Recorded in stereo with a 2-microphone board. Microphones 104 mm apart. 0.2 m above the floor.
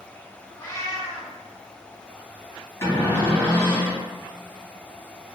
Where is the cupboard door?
25° left (ahead or behind), 1.4 m.